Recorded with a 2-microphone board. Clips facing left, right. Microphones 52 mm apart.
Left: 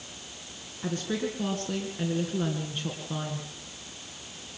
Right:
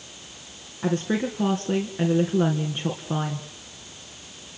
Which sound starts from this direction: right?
A woman speaking, at 0.8 s.